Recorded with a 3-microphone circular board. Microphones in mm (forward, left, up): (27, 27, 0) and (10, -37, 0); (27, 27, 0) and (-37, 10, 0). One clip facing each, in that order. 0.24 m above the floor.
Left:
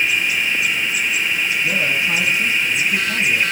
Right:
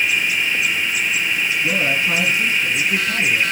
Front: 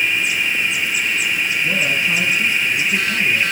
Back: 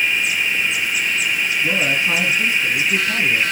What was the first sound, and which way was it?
A man speaking, 150° right.